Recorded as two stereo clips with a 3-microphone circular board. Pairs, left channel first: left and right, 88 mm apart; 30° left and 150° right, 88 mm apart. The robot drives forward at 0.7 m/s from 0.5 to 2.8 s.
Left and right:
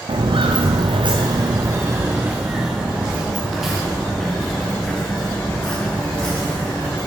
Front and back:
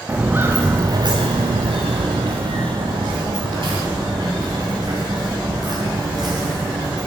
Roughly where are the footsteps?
Right.